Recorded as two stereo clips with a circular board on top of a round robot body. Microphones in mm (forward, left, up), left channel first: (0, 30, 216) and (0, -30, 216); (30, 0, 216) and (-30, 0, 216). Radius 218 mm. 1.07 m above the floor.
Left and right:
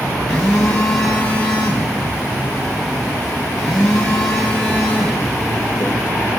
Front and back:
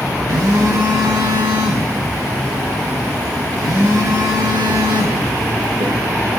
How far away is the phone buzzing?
About 0.7 m.